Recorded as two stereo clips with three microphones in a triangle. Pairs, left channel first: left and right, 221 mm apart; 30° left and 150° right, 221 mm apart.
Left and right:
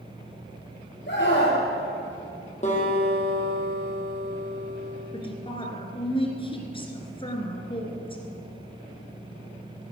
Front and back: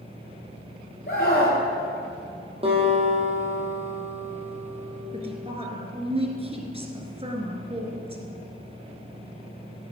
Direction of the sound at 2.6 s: 145° left.